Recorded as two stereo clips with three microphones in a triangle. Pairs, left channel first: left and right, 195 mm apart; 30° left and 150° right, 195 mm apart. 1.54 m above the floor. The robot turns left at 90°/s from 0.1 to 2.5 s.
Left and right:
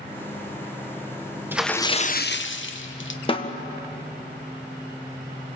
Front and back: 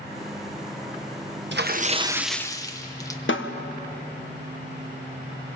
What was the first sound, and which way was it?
A splash, 170° right.